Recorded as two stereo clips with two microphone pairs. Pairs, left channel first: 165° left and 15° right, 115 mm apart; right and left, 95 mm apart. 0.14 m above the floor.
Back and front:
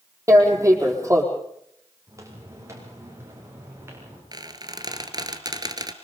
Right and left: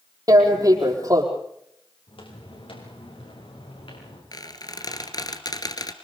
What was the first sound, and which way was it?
Tearing paper, 45° left.